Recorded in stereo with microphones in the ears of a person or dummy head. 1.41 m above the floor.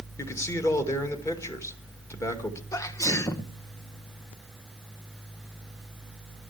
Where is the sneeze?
20° left (ahead or behind), 1.1 m.